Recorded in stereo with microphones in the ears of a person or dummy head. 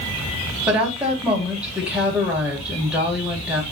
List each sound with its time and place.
0.7 s a woman speaking: 10° right (ahead or behind), 3.5 m